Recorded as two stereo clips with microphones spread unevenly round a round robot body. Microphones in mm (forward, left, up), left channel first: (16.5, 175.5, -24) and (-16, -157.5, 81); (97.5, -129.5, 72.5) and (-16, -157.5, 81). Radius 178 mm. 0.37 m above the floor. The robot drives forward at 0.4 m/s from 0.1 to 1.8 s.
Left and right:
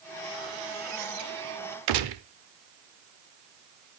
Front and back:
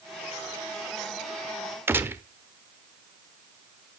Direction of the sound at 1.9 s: 95° right.